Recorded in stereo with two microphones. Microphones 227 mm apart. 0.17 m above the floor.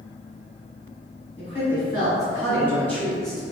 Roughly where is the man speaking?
Left.